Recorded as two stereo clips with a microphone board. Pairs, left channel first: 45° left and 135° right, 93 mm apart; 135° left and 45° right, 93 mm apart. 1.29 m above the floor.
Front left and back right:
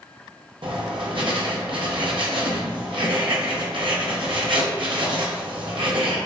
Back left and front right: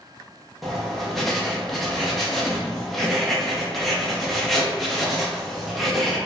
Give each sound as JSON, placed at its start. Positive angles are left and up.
{"t": 0.6, "sound": "writing", "azimuth_deg": -135, "distance_m": 0.9}